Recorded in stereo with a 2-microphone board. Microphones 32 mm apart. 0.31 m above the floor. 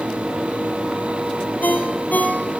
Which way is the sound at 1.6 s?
65° left (ahead or behind).